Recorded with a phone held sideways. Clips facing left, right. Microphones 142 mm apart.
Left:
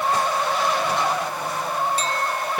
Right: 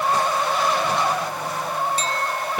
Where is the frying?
No frying in this recording.